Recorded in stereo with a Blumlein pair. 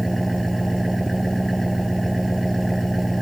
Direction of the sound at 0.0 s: Straight ahead.